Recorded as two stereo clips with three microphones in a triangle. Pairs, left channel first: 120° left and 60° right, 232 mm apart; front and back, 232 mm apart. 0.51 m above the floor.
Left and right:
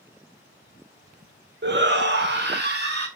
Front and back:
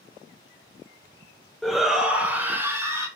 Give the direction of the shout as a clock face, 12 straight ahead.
3 o'clock.